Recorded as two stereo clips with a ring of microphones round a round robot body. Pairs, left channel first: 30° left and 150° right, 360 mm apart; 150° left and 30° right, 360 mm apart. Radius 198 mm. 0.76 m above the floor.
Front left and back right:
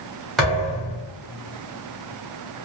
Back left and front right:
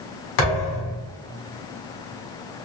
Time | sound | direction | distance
0.4 | a thud | 120° left | 1.4 m